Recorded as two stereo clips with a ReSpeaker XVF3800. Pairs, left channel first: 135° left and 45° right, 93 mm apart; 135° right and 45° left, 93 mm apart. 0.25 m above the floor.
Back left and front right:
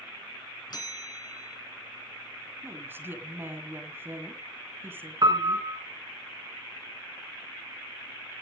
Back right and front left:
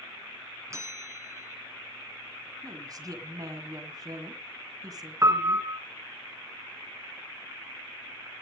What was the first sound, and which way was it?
A bell, 100° left.